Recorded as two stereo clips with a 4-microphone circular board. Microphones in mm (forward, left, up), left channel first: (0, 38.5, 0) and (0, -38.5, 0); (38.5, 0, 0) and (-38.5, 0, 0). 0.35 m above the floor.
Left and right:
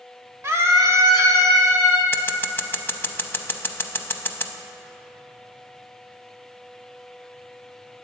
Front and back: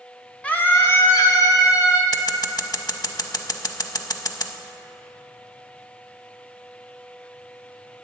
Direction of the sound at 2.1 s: 30° left.